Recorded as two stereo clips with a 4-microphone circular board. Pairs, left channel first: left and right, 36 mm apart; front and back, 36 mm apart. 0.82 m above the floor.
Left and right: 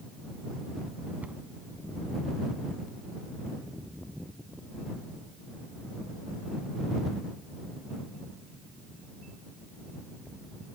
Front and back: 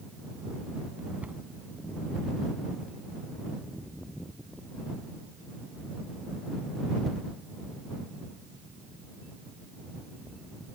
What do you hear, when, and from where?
1.2 s a cupboard door: 135° right